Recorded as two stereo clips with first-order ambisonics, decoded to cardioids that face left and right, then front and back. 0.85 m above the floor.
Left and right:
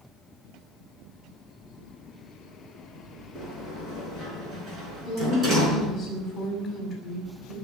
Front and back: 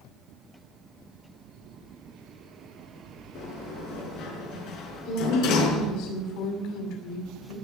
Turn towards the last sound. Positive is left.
turn(degrees=5)